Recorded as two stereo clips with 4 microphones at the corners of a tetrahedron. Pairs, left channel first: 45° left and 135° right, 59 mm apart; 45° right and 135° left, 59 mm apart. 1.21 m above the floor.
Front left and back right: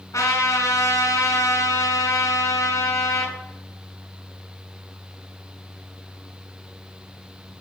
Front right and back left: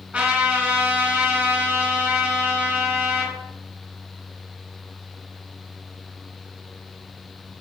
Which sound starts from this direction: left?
A trumpet, at 0.1 s.